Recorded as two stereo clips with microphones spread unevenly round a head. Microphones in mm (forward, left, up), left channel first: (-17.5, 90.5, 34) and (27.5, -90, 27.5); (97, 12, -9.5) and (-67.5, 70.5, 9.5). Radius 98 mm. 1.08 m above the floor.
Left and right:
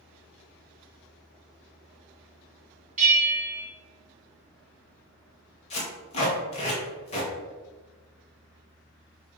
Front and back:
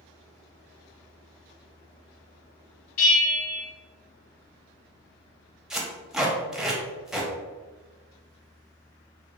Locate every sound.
3.0 s a bell: 25° right, 1.7 m
5.7 s tape being pulled: 85° left, 0.9 m